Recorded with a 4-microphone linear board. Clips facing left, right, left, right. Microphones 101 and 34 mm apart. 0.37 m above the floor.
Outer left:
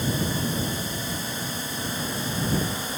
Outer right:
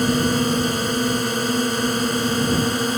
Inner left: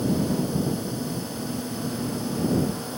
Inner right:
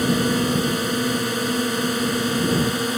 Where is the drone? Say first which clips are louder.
Outer right 8 dB, inner right 5 dB; 75° right (ahead or behind).